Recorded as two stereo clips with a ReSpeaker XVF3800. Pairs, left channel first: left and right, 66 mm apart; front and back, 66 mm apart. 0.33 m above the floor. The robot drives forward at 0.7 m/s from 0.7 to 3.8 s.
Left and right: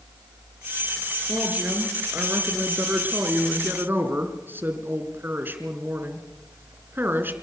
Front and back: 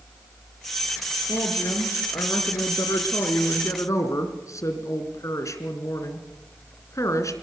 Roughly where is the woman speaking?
Ahead.